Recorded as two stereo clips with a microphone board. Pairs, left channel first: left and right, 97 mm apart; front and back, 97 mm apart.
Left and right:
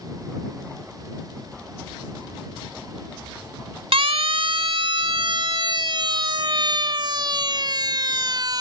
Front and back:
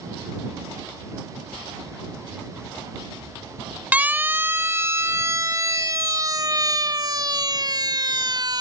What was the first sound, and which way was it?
A siren, 105° right.